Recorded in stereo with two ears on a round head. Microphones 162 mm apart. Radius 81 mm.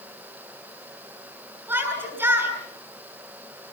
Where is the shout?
10° right (ahead or behind), 9.5 m.